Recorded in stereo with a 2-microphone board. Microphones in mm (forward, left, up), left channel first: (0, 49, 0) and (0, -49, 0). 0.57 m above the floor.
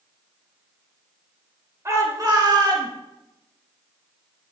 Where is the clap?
I don't hear a clap.